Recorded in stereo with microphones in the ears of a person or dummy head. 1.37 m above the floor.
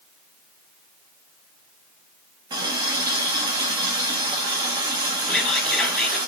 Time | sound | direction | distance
2.5 | a running tap | 25° right (ahead or behind) | 1.1 m
5.3 | whispering | 5° left (ahead or behind) | 1.5 m